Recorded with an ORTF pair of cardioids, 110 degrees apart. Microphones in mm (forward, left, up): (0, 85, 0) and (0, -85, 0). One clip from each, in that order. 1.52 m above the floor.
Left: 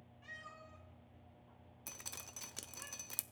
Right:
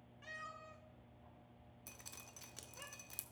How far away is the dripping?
About 0.5 m.